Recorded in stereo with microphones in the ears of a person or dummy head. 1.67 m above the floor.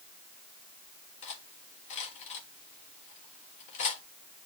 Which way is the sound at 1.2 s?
40° left (ahead or behind).